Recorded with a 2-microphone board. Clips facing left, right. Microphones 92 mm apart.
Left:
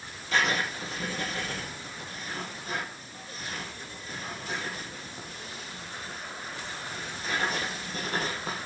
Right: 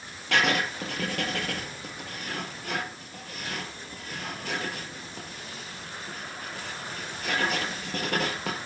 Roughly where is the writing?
Right.